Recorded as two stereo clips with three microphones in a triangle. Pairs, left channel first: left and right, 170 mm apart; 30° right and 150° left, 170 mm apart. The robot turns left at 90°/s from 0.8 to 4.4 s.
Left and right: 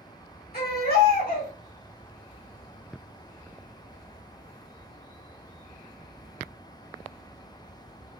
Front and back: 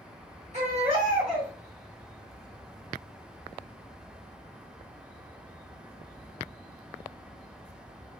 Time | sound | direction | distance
0.5 | a baby crying | 105° left | 1.9 m